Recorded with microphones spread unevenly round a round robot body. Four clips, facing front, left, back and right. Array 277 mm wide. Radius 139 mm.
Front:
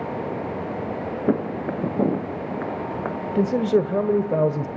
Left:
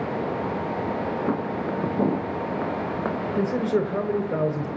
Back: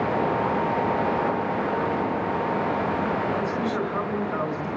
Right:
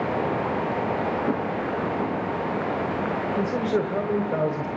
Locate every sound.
1.3 s footsteps: straight ahead, 2.5 m; by 3.2 s 60° left, 3.5 m
3.4 s a man speaking: 5° left, 1.7 m